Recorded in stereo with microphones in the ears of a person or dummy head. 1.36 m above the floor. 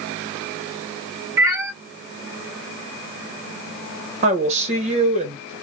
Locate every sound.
1.4 s a cat meowing: 10° right (ahead or behind), 2 m
4.2 s a woman speaking: 35° right (ahead or behind), 1.2 m